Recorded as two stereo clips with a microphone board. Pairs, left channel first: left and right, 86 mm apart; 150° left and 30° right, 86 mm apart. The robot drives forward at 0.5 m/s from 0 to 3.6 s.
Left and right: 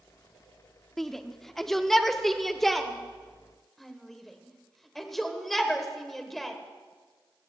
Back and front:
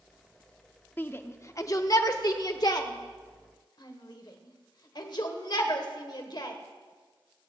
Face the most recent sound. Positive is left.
turn(degrees=180)